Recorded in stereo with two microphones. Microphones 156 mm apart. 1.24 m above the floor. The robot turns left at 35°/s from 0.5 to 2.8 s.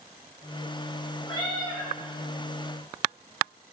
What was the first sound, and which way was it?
A cat meowing, 35° left (ahead or behind).